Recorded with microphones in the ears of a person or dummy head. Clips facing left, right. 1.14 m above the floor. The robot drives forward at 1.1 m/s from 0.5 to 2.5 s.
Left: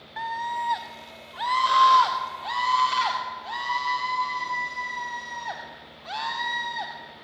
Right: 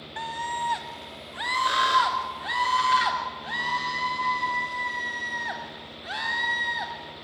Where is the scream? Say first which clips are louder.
Left 2 dB; 40° right (ahead or behind), 1.4 m; by 6.9 s 15° right (ahead or behind), 3.5 m.